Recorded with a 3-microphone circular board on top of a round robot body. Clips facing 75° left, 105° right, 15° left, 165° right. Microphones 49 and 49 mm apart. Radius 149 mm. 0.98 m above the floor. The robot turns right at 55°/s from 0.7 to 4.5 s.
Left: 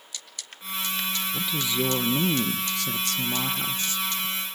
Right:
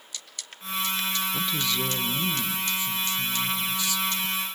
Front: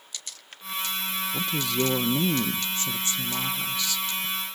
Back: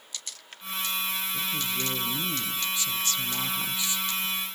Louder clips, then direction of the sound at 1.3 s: Even, front 4 dB; 15° right.